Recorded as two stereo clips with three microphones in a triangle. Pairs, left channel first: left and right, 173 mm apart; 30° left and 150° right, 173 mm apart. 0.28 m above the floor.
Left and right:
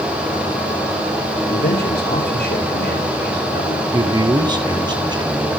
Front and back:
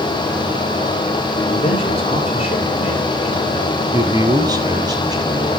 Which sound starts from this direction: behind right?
A man speaking, at 3.9 s.